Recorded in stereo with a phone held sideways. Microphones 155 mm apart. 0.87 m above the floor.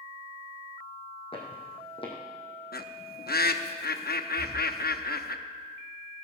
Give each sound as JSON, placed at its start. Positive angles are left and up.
{"t": 1.3, "sound": "footsteps", "side_deg": 35, "distance_m": 2.5}
{"t": 2.7, "sound": "a bird", "side_deg": 85, "distance_m": 0.7}
{"t": 4.4, "sound": "breathing", "side_deg": 0, "distance_m": 6.0}